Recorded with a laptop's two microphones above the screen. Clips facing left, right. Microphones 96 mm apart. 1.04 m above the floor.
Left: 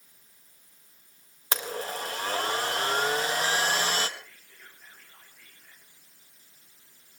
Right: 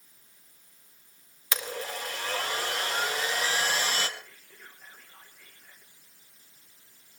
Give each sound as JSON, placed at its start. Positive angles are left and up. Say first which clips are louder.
{"t": 1.5, "sound": "a blender", "louder": "left 2 dB", "side_deg": 40, "distance_m": 1.8}
{"t": 4.2, "sound": "whispering", "louder": "right 1 dB", "side_deg": -10, "distance_m": 2.0}